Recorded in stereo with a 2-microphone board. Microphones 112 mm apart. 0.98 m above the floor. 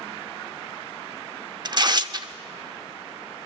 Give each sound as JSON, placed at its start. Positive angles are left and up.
{"t": 1.6, "sound": "tearing paper", "side_deg": -40, "distance_m": 0.7}